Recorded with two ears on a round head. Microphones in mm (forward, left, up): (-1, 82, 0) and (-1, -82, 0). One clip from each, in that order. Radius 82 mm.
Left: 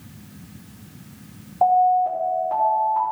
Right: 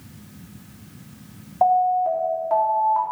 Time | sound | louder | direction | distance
1.6 | an alarm | left 1 dB | 45° right (ahead or behind) | 4 m